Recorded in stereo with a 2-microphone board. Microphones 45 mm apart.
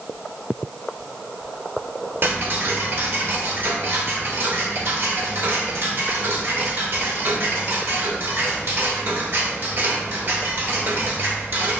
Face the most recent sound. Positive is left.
turn(degrees=-45)  # may be behind; listen again after turning